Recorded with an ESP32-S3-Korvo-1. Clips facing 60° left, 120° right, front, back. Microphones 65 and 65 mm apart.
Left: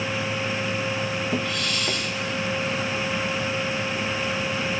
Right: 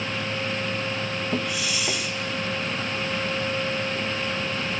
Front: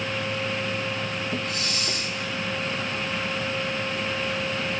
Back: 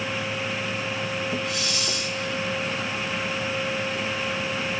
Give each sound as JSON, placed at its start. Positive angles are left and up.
{"t": 1.4, "sound": "a hiss", "azimuth_deg": -40, "distance_m": 1.8}